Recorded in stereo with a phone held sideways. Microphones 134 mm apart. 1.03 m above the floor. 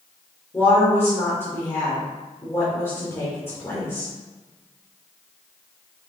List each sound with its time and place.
0.5 s a woman speaking: 20° left (ahead or behind), 2.5 m